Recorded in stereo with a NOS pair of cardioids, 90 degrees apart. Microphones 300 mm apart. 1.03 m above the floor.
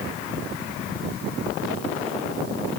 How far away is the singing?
No singing in this recording.